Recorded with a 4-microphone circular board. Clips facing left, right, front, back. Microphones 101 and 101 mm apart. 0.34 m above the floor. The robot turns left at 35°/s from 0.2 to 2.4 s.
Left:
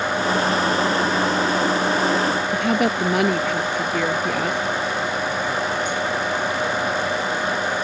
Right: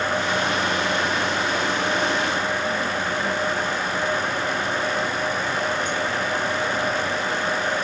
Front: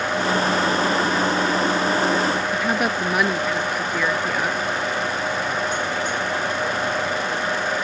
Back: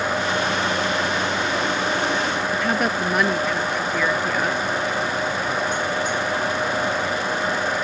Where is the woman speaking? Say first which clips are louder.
Left 5 dB, even; 85° left.